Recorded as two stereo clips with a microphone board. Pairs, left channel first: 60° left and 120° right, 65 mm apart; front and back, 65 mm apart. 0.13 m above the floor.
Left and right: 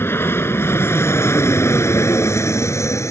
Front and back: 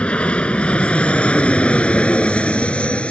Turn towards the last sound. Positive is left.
turn(degrees=65)